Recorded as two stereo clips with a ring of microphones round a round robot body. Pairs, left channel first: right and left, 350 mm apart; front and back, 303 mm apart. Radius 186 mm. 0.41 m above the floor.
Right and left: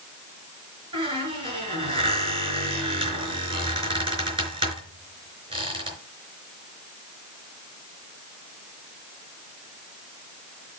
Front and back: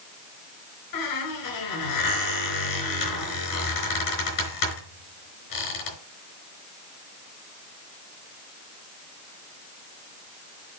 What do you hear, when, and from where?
0.9 s a squeak: 15° left, 5 m